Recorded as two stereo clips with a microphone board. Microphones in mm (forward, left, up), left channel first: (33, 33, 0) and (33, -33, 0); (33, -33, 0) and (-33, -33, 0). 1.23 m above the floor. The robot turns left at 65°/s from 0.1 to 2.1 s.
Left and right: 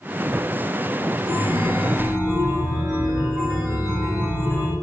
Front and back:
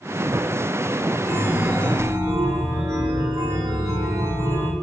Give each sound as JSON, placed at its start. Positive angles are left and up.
{"t": 1.2, "sound": "a chime", "azimuth_deg": -115, "distance_m": 0.7}